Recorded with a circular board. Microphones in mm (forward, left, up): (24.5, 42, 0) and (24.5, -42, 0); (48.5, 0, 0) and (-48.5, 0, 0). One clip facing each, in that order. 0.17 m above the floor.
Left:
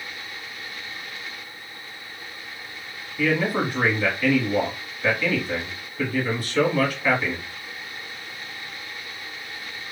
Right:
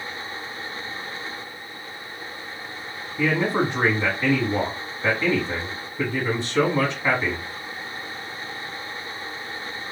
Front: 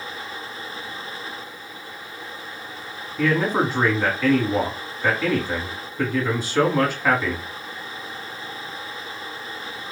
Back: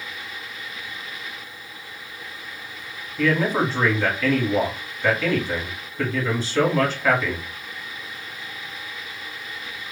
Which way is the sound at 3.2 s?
65° right.